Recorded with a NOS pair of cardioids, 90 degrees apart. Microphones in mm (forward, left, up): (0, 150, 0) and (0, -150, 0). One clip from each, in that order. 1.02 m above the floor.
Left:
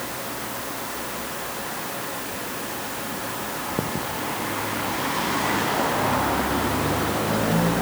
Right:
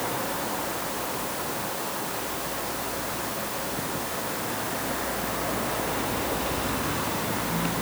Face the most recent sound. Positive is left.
No sound to turn to.